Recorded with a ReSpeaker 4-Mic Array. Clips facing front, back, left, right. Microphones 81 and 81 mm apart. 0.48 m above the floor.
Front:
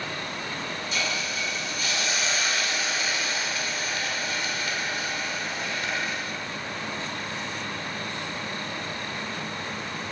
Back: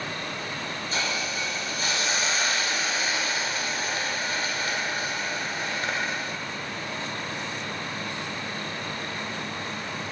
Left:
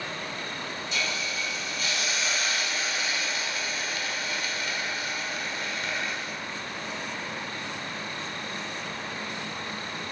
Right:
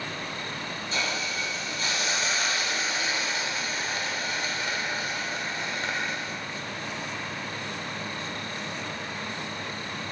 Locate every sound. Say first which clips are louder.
0.9 s a hiss: back 1 dB, right 2 dB; 135° right, 1.3 m